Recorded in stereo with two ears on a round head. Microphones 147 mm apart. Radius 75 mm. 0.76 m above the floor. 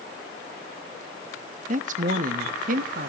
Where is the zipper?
I don't hear a zipper.